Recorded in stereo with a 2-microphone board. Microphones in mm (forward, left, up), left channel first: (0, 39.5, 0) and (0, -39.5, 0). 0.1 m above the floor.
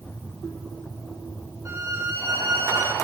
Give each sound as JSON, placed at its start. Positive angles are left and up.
{"t": 1.6, "sound": "a violin", "side_deg": -35, "distance_m": 3.0}